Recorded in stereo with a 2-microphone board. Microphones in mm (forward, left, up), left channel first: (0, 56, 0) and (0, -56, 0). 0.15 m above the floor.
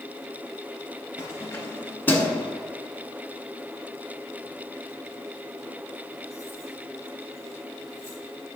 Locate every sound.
1.2 s keys jangling: 25° left (ahead or behind), 1.6 m; by 8.2 s 30° right (ahead or behind), 4 m